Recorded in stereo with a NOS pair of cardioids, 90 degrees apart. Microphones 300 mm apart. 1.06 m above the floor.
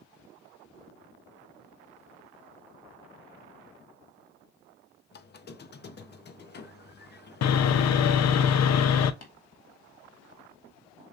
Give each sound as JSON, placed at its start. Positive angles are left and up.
{"t": 5.1, "sound": "a squeak", "azimuth_deg": 35, "distance_m": 0.7}
{"t": 7.4, "sound": "sawing", "azimuth_deg": 60, "distance_m": 0.6}
{"t": 9.2, "sound": "tapping", "azimuth_deg": 60, "distance_m": 1.6}